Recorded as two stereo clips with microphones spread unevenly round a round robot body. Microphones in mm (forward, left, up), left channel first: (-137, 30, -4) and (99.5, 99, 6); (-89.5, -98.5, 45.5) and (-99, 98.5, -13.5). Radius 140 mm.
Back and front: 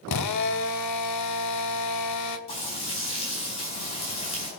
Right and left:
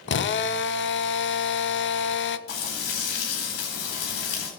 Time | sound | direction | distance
0.1 | a drill | 125° right | 0.8 m
2.5 | frying | 95° right | 4 m